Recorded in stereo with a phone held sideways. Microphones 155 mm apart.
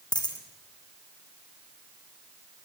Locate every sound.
0.1 s a dropped coin: 25° left (ahead or behind), 3.5 m